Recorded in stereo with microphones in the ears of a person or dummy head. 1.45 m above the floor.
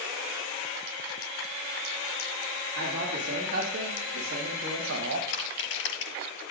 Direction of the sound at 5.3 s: 75° left (ahead or behind).